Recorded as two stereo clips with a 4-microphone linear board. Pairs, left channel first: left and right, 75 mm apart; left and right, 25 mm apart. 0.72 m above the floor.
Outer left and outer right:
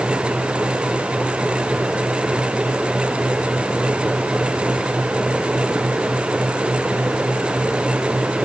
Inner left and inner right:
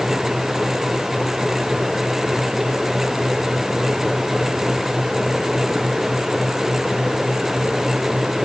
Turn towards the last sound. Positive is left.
No sound to turn to.